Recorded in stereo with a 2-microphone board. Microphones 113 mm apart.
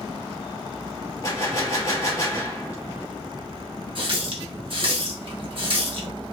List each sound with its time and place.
1.2 s a gunshot: 30° left (ahead or behind), 1.0 m
4.0 s a running tap: 50° right (ahead or behind), 0.8 m